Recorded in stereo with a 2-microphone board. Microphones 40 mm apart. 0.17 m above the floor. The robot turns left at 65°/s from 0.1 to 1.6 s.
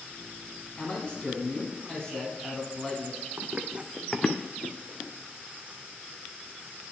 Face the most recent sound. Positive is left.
turn(degrees=55)  # may be behind; listen again after turning